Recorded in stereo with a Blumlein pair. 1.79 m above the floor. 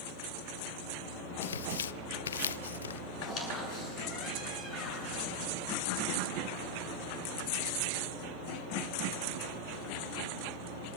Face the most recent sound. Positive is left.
turn(degrees=30)